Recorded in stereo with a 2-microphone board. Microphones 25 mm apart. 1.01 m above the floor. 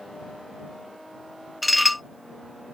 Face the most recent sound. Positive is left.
turn(degrees=-5)  # may be behind; listen again after turning